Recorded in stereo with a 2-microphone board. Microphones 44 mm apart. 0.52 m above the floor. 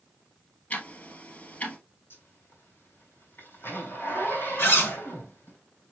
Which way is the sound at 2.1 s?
70° left (ahead or behind).